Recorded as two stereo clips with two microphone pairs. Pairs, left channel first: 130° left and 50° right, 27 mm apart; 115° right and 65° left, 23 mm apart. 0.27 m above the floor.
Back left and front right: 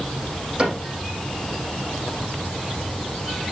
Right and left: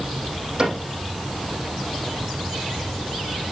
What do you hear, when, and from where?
0.6 s a cupboard door: 10° left, 9 m